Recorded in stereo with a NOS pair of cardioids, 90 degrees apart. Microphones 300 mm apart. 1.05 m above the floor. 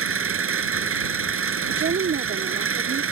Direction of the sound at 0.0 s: 45° right.